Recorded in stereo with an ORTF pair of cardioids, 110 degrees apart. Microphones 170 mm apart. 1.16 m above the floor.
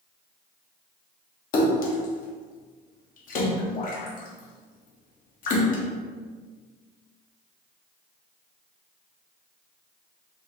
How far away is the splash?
About 0.8 m.